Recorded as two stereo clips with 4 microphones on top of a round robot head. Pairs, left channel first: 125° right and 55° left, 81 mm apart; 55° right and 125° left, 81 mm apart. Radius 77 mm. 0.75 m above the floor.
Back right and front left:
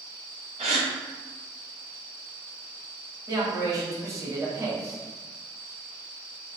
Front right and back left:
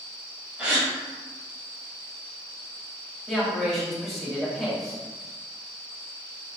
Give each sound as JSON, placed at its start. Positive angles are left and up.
{"t": 0.6, "sound": "a gasp", "azimuth_deg": 50, "distance_m": 0.5}
{"t": 3.3, "sound": "a man speaking", "azimuth_deg": 35, "distance_m": 1.4}